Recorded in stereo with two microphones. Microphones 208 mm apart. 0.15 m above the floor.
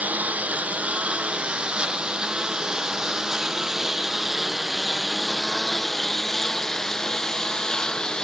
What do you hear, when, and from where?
0.0 s a lawn mower: 10° right (ahead or behind); by 8.3 s 5° left (ahead or behind)